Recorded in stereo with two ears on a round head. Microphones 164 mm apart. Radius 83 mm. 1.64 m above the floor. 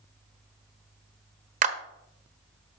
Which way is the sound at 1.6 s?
45° right (ahead or behind).